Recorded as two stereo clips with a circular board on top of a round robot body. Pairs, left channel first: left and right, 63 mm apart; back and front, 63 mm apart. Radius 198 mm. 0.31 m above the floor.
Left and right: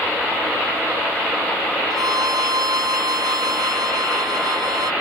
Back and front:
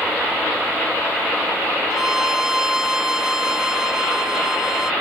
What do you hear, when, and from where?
1.9 s a violin: 80° right